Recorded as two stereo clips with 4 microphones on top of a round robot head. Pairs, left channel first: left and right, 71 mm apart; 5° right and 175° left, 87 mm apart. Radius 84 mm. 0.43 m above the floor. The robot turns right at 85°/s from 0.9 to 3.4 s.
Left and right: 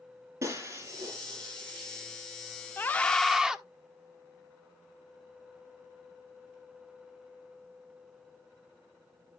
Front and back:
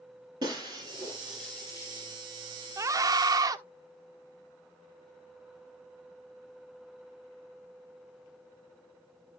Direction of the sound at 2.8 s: 135° left.